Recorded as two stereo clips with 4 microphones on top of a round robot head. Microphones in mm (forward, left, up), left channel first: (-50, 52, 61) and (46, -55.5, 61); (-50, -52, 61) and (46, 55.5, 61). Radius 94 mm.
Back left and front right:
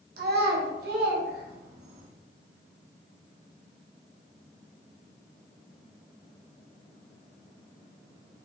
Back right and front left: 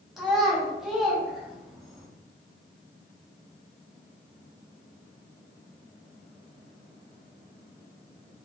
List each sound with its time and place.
0.2 s a child speaking: 40° right, 0.8 m